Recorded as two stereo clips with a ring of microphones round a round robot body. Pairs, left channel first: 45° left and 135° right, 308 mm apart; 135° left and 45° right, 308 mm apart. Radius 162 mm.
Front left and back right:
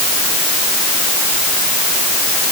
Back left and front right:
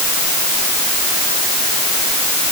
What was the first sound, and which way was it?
Only background noise.